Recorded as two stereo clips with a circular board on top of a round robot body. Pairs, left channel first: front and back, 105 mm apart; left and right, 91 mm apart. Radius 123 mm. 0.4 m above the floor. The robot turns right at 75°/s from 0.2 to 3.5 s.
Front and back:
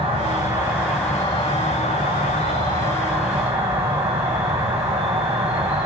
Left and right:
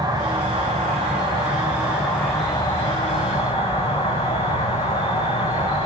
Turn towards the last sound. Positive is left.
turn(degrees=110)